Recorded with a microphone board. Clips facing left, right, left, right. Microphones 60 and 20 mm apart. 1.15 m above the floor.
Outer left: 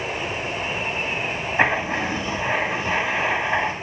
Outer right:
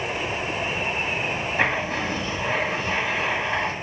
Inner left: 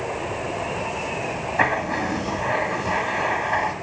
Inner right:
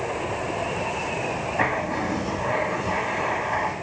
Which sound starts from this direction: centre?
Writing, at 1.6 s.